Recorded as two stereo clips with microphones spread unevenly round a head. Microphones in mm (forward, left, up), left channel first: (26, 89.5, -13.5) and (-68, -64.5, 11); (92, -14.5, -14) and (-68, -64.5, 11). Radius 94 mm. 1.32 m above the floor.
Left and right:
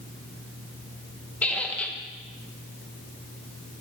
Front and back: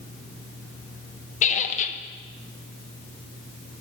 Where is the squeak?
30° right, 0.6 m.